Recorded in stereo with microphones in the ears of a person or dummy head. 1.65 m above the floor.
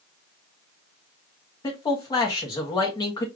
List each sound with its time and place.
1.6 s a man speaking: 20° left (ahead or behind), 1.2 m